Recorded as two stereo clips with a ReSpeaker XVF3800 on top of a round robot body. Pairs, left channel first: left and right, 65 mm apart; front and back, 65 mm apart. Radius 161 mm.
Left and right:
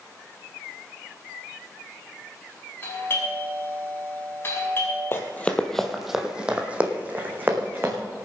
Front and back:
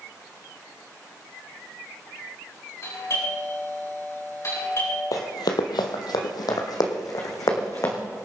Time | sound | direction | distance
2.8 | a doorbell | 35° left | 7.5 m
5.1 | running footsteps | 40° left | 1.1 m